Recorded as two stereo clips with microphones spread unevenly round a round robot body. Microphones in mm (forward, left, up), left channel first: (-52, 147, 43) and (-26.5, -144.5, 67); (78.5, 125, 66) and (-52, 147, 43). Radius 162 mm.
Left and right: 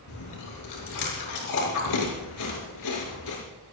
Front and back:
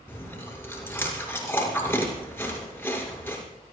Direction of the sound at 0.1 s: 65° left.